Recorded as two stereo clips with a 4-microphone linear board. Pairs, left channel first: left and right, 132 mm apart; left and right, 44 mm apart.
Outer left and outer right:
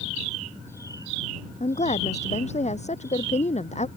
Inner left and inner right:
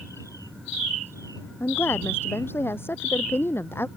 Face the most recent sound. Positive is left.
turn(degrees=55)  # may be behind; listen again after turning